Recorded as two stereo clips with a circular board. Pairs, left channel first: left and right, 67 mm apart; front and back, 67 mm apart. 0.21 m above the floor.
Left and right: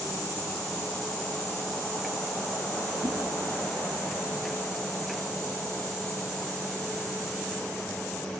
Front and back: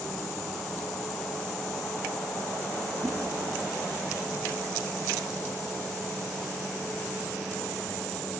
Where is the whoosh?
105° right, 3 m.